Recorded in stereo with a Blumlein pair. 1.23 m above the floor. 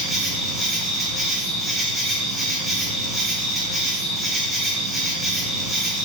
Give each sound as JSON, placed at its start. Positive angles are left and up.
{"t": 0.0, "sound": "an insect", "azimuth_deg": -5, "distance_m": 1.2}